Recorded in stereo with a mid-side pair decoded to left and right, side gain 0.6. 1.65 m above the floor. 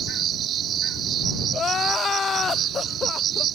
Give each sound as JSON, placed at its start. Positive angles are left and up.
{"t": 0.0, "sound": "an insect", "azimuth_deg": -55}
{"t": 1.5, "sound": "crying", "azimuth_deg": 30}